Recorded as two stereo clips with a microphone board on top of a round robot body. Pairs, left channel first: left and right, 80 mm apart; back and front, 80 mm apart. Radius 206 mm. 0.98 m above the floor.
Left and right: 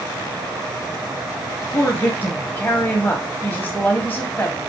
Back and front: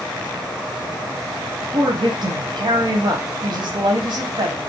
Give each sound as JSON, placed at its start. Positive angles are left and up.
{"t": 1.7, "sound": "a woman speaking", "azimuth_deg": 15, "distance_m": 0.9}